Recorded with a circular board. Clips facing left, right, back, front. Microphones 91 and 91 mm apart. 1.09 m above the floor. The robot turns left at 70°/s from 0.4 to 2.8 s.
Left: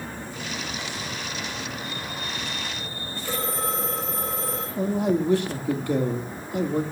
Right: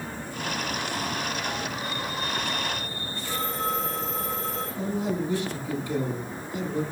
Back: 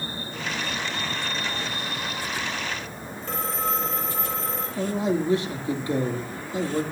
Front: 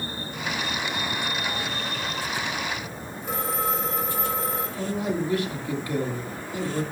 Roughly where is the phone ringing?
Left.